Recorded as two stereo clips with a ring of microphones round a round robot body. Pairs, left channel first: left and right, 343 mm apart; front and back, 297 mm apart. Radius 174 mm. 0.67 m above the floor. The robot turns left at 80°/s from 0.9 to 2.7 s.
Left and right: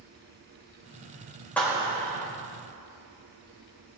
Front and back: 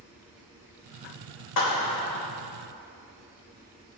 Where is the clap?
5° left, 2 m; by 2.3 s 55° right, 2 m.